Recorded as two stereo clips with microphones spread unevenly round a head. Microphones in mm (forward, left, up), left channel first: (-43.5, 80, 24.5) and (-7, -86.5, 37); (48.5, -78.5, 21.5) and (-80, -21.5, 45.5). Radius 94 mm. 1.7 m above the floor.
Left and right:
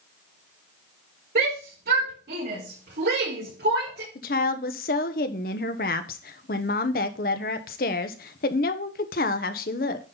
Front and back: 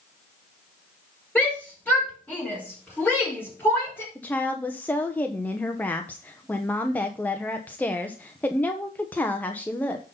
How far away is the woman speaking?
About 0.9 m.